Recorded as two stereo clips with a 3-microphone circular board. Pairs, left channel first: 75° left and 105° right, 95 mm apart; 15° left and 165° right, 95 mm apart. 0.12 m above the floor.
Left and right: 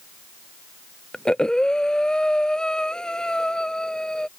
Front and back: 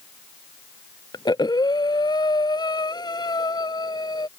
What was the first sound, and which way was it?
Breathing, 5° right.